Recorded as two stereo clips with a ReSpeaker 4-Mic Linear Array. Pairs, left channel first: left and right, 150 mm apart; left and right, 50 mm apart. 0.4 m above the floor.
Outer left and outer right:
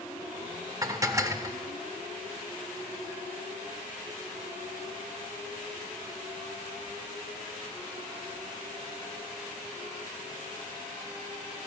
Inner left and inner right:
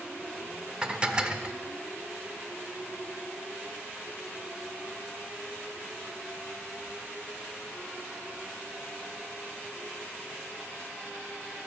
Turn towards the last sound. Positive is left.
turn(degrees=-20)  # may be behind; listen again after turning